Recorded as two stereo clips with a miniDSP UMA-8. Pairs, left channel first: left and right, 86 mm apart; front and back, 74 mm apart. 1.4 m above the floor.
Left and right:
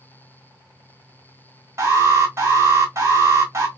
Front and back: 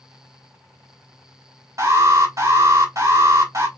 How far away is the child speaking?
No child speaking in this recording.